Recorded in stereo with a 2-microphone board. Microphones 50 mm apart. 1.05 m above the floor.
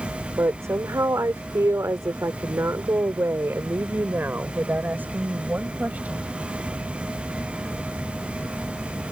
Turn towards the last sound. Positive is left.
turn(degrees=-30)  # may be behind; listen again after turning